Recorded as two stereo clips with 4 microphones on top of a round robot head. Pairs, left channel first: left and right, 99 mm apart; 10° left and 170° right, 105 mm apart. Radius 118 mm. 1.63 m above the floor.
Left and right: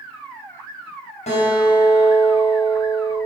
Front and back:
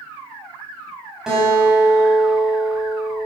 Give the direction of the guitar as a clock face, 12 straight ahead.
9 o'clock.